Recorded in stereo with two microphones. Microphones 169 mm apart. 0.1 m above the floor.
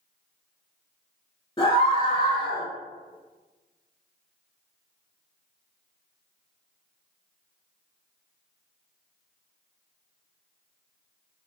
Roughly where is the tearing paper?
No tearing paper in this recording.